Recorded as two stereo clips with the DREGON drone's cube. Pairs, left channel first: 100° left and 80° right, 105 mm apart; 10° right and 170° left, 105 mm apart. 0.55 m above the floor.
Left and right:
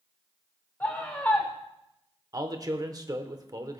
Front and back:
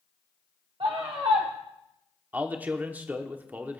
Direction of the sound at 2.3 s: 120° right.